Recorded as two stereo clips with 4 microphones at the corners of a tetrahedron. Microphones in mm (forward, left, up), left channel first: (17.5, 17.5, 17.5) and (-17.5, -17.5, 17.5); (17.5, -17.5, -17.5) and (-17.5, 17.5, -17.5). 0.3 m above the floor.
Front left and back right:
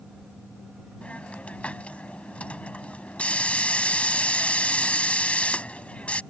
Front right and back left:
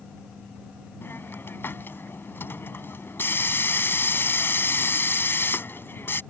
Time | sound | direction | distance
1.0 | a hiss | 20° right | ?